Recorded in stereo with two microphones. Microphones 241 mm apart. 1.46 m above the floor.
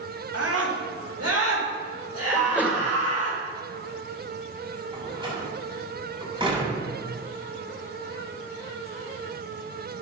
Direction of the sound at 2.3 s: 5° right (ahead or behind).